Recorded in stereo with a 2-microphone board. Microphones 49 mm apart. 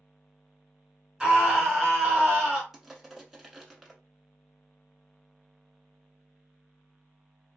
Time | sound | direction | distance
1.2 | a scream | 20° right (ahead or behind) | 1.6 m
2.7 | crushing | 5° right (ahead or behind) | 0.8 m